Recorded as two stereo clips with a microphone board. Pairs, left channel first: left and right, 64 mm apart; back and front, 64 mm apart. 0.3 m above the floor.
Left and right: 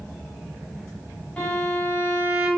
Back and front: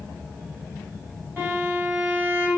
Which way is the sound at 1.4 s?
25° left.